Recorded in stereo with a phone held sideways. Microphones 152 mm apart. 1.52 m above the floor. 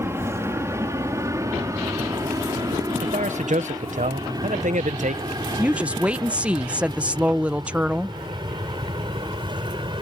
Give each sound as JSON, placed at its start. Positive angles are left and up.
{"t": 0.0, "sound": "an aircraft", "side_deg": -15}
{"t": 3.0, "sound": "a man speaking", "side_deg": -55}
{"t": 5.6, "sound": "a woman speaking", "side_deg": -10}